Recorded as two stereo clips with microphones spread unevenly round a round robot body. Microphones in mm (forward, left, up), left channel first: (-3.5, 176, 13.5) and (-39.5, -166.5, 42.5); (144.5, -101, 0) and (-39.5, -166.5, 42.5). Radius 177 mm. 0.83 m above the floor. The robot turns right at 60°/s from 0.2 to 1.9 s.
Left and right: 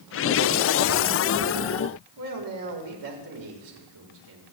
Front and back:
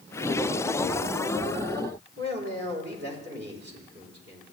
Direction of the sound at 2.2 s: 125° right.